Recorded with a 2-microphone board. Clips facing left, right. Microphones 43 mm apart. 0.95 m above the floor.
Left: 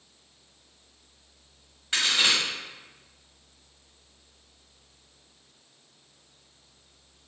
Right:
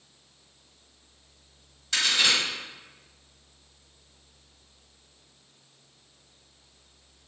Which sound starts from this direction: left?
A crack, at 1.9 s.